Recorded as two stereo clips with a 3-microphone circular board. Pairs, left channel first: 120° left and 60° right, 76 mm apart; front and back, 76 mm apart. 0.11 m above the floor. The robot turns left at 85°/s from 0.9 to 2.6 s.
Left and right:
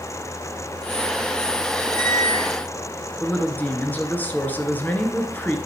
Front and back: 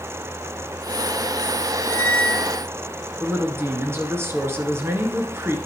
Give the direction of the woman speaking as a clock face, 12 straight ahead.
6 o'clock.